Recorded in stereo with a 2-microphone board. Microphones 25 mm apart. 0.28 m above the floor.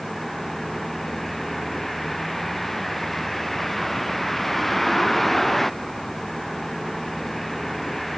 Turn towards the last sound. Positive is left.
turn(degrees=5)  # may be behind; listen again after turning